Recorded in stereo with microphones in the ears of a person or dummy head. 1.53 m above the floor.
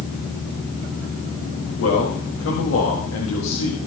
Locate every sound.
1.8 s a man speaking: 85° left, 3.5 m